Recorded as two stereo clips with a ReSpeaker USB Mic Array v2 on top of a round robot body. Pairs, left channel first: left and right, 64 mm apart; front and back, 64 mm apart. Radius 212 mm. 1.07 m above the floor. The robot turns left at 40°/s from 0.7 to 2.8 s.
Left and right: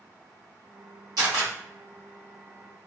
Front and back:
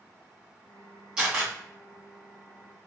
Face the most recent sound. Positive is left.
turn(degrees=-170)